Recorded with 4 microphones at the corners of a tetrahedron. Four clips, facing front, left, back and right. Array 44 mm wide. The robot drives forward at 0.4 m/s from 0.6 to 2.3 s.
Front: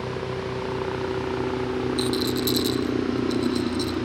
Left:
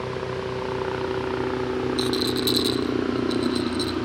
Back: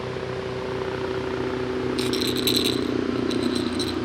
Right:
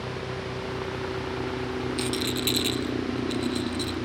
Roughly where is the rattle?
Behind right.